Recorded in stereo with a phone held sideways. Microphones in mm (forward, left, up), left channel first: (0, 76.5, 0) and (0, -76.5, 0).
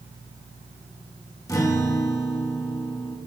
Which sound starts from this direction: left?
A guitar, at 1.5 s.